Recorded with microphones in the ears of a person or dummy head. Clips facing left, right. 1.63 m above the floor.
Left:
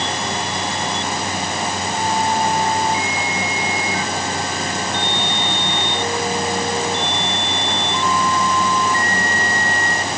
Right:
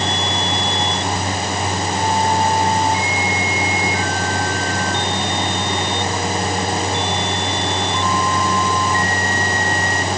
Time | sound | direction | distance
0.0 | a fan | 35° right (ahead or behind) | 6.5 m